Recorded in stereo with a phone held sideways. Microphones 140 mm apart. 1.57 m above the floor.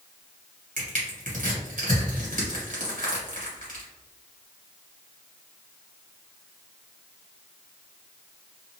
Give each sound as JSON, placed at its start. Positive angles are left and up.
{"t": 0.8, "sound": "crushing", "side_deg": -65, "distance_m": 1.3}